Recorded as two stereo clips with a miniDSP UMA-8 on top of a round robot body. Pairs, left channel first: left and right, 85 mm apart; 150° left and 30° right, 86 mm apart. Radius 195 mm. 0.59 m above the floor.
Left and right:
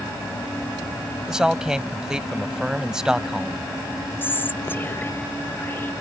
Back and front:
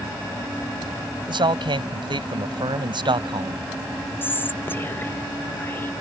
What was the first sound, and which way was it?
A man speaking, 5° right.